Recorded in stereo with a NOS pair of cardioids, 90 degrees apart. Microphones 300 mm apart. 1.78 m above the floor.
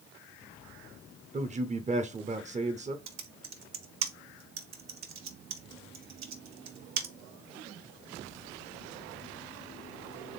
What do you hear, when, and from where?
1.3 s a man speaking: 25° right, 0.7 m
3.1 s typing on a keyboard: 60° right, 1.2 m